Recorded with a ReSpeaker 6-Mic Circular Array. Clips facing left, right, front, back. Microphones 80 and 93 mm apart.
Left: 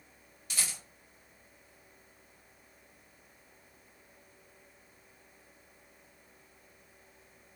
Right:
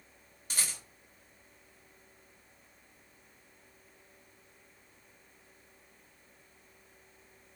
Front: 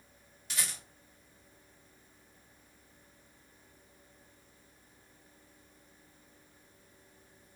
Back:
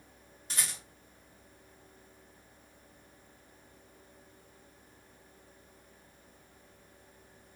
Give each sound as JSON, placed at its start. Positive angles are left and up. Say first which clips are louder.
{"t": 0.5, "sound": "a rattle", "louder": "even, even", "azimuth_deg": -135, "distance_m": 1.2}